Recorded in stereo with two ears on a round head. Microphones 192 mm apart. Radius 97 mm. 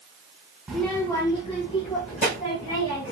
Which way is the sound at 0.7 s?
5° right (ahead or behind).